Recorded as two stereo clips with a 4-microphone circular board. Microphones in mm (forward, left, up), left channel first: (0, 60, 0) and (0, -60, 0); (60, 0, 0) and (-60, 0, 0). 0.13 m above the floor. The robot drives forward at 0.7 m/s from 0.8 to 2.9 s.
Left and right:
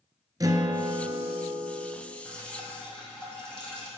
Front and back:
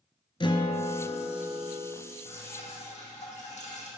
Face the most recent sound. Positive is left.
turn(degrees=10)